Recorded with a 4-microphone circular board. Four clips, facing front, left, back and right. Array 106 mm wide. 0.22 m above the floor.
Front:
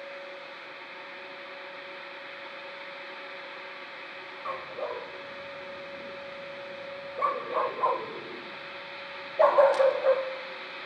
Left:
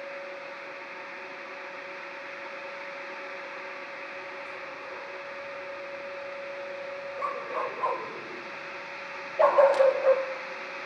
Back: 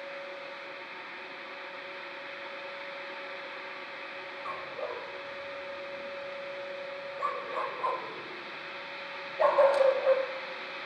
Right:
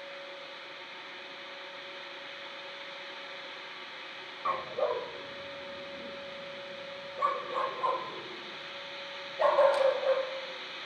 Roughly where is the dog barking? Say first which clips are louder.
Right 9 dB, front 3 dB; right.